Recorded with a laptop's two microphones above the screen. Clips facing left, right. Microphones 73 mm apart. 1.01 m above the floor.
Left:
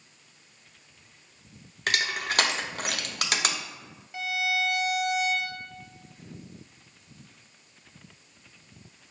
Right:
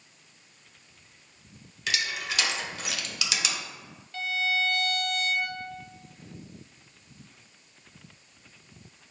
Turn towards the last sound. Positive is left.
turn(degrees=15)  # may be behind; listen again after turning